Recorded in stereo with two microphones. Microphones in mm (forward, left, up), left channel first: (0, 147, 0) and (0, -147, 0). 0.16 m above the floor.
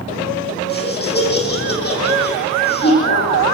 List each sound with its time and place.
0.7 s laughter: 35° left (ahead or behind), 8.5 m